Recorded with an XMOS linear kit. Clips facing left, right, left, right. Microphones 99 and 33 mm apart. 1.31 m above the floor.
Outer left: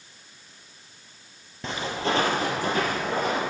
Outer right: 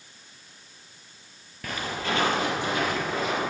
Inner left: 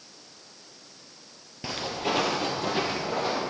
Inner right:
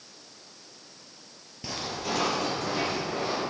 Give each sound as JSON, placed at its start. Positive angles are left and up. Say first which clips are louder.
{"t": 1.6, "sound": "footsteps", "louder": "outer left 3 dB, inner left 3 dB", "side_deg": 25, "distance_m": 1.4}